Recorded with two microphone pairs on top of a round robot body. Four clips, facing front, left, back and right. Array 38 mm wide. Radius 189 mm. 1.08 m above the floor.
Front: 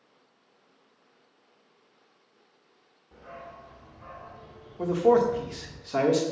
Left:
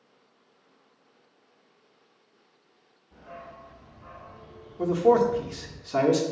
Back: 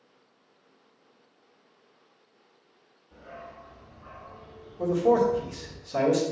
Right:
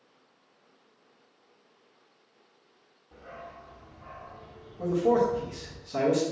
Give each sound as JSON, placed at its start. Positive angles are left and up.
{"t": 3.1, "sound": "a dog barking", "azimuth_deg": -40, "distance_m": 1.1}
{"t": 4.8, "sound": "a man speaking", "azimuth_deg": 35, "distance_m": 1.3}